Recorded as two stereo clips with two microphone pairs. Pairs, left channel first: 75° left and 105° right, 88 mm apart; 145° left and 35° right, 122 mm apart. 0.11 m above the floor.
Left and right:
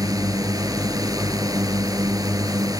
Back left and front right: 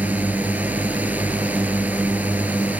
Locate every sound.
0.0 s a drone: 110° right